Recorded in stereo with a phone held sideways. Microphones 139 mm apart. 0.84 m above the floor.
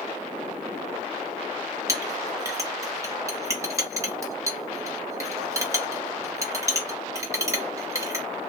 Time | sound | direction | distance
1.9 | a clink | 20° right (ahead or behind) | 0.9 m